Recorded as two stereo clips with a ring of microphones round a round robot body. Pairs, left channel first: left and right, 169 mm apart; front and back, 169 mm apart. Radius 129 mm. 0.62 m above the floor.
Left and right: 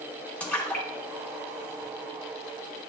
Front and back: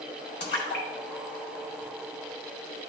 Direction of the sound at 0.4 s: 5° left.